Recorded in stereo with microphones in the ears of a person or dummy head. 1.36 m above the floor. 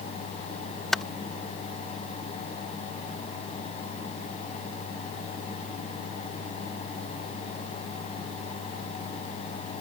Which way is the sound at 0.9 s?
5° left (ahead or behind).